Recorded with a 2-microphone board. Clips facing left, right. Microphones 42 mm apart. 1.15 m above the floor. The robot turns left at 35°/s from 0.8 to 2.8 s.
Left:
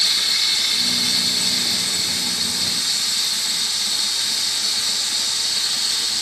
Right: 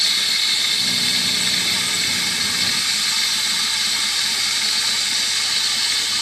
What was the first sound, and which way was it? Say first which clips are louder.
Running water: right 1 dB; 20° right.